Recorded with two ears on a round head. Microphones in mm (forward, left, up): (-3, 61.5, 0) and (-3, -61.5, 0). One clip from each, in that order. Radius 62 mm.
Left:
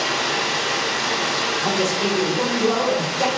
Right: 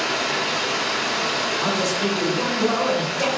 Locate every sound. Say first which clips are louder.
0.0 s running water: left 1 dB; 70° left (ahead or behind), 1.7 m
1.6 s a man speaking: left 1 dB; centre (ahead or behind), 1.3 m